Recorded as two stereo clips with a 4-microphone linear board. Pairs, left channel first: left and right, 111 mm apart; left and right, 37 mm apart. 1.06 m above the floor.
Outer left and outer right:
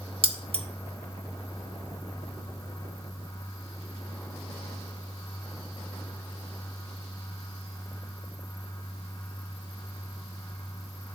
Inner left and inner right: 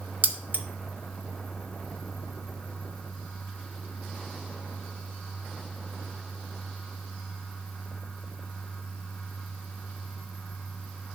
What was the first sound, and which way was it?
Keys jangling, 60° right (ahead or behind).